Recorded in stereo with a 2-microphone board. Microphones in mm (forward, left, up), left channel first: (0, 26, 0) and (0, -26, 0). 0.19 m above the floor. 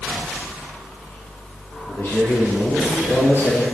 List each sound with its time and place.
1.9 s a man speaking: 35° left (ahead or behind), 5 m; by 3.6 s 45° left (ahead or behind), 4.5 m